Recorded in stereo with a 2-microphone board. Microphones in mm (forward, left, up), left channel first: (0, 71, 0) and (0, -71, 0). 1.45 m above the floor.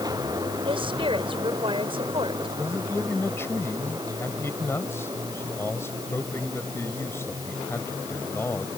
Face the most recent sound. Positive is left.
turn(degrees=15)  # may be behind; listen again after turning